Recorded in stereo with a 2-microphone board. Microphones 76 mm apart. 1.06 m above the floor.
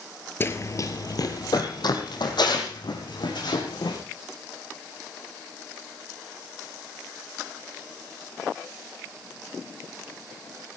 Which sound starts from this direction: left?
Running footsteps, at 0.4 s.